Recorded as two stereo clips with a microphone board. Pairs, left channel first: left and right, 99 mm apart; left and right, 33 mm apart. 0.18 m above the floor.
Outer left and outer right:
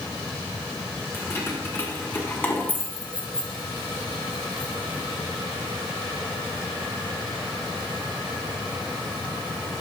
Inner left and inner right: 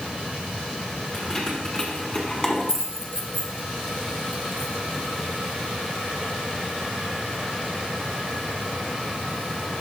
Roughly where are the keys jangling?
Left.